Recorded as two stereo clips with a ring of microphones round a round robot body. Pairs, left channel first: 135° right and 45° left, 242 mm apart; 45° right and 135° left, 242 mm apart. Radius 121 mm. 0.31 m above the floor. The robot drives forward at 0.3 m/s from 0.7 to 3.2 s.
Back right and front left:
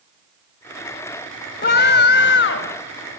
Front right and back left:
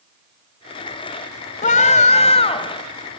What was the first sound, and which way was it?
A scream, 95° right.